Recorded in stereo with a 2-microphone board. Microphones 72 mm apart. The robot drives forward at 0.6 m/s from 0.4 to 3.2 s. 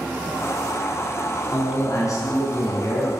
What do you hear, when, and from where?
1.5 s a man speaking: 50° left (ahead or behind), 2.5 m; by 3.1 s 45° left (ahead or behind), 2.5 m